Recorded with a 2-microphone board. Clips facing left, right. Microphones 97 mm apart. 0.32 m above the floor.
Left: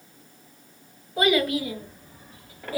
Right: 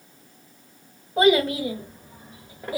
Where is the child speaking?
30° right (ahead or behind), 1.1 m; by 2.8 s 15° right (ahead or behind), 0.7 m.